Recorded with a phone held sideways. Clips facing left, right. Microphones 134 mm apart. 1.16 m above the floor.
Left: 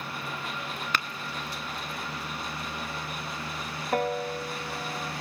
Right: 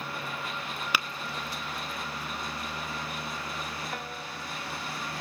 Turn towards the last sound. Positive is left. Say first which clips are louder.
# left 11 dB
turn(degrees=50)  # may be behind; listen again after turning